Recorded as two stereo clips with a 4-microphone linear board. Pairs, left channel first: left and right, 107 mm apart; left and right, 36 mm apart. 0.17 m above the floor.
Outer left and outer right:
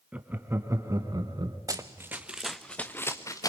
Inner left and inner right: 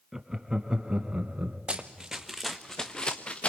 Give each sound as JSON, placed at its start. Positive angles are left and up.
{"t": 0.1, "sound": "laughter", "side_deg": -10, "distance_m": 1.2}
{"t": 1.7, "sound": "running footsteps", "side_deg": -35, "distance_m": 0.9}